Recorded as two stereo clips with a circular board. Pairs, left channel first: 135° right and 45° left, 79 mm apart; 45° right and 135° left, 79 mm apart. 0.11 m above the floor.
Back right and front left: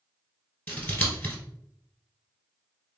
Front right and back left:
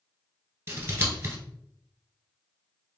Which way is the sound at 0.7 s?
170° left.